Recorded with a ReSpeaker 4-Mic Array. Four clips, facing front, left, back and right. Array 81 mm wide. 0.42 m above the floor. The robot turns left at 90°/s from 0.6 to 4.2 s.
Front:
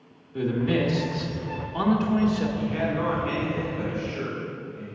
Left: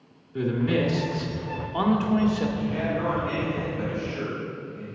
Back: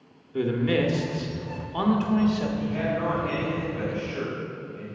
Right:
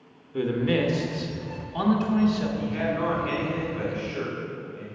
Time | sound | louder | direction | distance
0.3 | a man speaking | even, back 1 dB | 130° right | 0.8 m
2.6 | a man speaking | even, front 1 dB | 20° left | 1.6 m